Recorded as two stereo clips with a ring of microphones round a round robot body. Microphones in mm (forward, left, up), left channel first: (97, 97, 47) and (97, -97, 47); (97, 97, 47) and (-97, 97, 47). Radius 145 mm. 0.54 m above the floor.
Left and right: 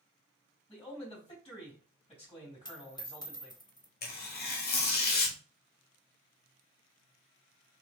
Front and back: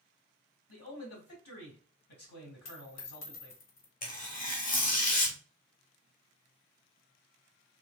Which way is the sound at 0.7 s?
30° left.